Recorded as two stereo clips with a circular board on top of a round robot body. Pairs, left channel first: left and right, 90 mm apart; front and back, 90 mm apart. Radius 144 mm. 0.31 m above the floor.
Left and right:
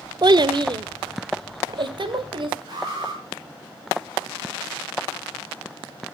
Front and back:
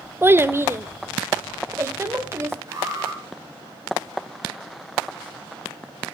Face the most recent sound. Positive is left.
turn(degrees=-125)